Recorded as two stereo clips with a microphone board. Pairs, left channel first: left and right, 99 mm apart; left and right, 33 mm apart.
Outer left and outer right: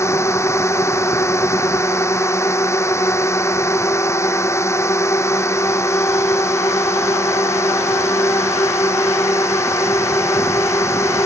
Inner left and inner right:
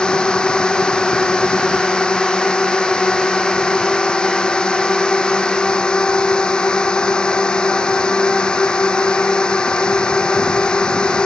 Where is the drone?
30° left (ahead or behind).